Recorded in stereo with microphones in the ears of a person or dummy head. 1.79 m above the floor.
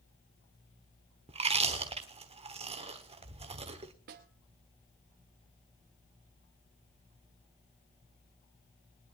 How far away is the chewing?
About 1.2 m.